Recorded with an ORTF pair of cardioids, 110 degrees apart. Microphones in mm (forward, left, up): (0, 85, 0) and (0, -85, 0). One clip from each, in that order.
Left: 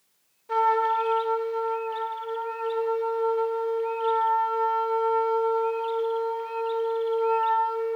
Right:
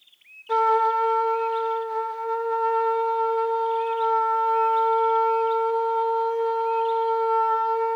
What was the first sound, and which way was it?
A trumpet, 20° right.